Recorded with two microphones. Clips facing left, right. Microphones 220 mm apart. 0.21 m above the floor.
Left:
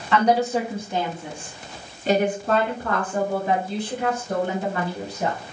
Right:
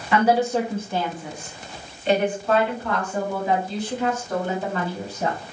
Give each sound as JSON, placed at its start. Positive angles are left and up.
{"t": 0.1, "sound": "a woman speaking", "side_deg": -10, "distance_m": 1.1}